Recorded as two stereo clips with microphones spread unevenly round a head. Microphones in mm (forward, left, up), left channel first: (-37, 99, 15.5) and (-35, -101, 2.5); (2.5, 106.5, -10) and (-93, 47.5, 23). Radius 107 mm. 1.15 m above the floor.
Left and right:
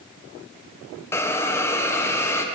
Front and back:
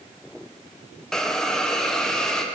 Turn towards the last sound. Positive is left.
turn(degrees=20)